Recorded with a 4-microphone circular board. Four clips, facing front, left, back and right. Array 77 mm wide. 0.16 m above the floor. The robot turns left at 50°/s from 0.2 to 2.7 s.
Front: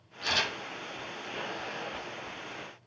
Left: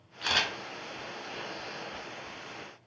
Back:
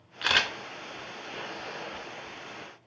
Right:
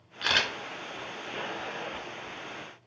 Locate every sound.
0.2 s a camera shutter: 155° right, 0.6 m; by 0.5 s 170° right, 0.6 m